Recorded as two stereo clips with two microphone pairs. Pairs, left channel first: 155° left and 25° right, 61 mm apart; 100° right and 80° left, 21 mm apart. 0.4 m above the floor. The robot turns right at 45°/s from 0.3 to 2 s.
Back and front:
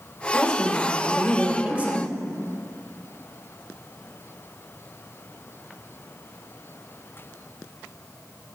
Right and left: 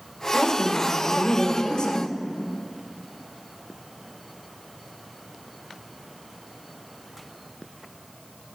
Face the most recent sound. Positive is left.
turn(degrees=-70)